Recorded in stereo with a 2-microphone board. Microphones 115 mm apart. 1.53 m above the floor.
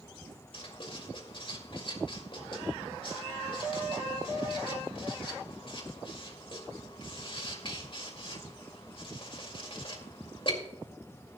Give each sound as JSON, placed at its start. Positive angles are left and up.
{"t": 0.5, "sound": "writing", "side_deg": 50, "distance_m": 2.0}